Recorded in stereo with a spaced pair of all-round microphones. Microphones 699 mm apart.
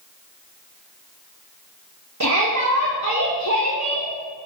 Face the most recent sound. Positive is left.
turn(degrees=-25)  # may be behind; listen again after turning